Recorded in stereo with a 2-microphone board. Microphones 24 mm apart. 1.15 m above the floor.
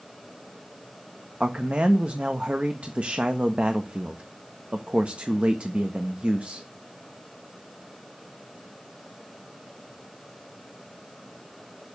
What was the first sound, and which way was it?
A man speaking, 65° right (ahead or behind).